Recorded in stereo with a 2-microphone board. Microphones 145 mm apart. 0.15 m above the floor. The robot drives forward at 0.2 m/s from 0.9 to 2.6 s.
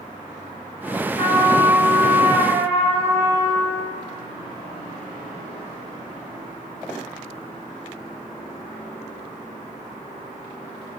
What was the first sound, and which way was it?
A trumpet, 40° left (ahead or behind).